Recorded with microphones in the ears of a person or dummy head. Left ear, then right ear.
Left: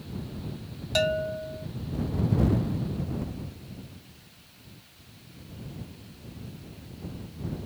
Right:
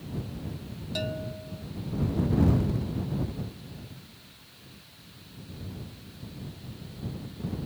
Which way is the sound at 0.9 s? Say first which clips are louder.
Left 9 dB; 40° left (ahead or behind).